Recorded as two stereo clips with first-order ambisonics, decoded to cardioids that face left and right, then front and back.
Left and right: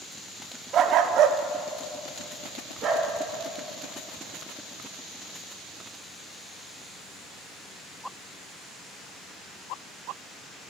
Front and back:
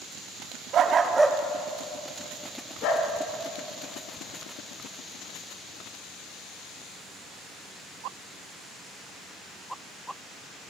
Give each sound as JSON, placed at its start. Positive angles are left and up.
{"t": 0.7, "sound": "a dog barking", "azimuth_deg": -135, "distance_m": 0.6}